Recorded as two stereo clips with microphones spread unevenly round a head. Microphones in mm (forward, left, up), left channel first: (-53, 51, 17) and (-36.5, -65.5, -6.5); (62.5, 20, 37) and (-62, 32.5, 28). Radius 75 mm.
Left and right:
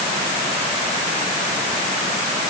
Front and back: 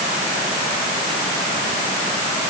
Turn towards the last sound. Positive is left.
No sound to turn to.